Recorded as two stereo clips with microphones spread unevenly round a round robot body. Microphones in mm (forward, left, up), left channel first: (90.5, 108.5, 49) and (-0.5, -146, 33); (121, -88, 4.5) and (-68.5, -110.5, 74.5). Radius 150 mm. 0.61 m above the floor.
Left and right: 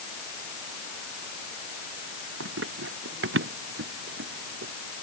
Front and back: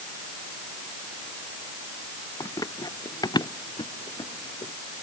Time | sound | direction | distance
2.4 | running footsteps | 65° right | ?